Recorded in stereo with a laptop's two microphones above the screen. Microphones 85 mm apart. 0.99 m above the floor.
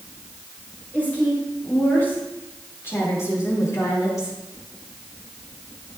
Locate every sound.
0.9 s a woman speaking: 20° left (ahead or behind), 4.5 m; by 4.4 s 45° left (ahead or behind), 2.5 m